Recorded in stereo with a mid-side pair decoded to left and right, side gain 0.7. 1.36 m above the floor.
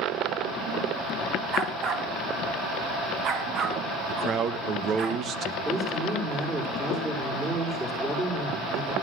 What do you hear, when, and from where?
1.5 s a dog barking: 45° right, 3 m; by 5.1 s 50° right, 6 m
4.1 s a man speaking: 45° right, 1.5 m
5.7 s a man speaking: 20° right, 4.5 m